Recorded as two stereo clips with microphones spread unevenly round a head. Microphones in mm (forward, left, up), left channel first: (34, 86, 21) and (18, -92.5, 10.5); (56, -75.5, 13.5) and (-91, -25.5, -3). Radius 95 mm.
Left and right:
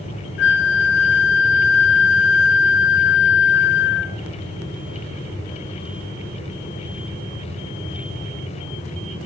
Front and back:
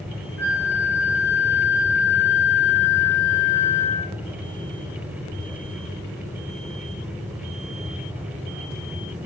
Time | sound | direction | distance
0.4 | a flute | 60° left | 1.3 m